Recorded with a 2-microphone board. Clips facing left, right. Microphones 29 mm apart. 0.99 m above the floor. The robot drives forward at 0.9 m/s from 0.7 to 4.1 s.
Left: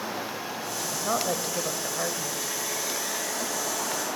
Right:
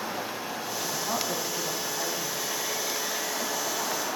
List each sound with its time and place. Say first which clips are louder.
0.8 s a woman speaking: left 3 dB; 60° left (ahead or behind), 5.5 m; by 2.5 s 75° left (ahead or behind), 5 m